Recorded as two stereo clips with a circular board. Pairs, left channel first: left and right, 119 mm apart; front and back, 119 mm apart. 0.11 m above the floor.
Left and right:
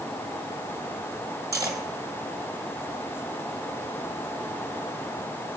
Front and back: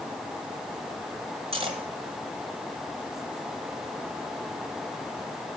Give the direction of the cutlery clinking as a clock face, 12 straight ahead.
5 o'clock.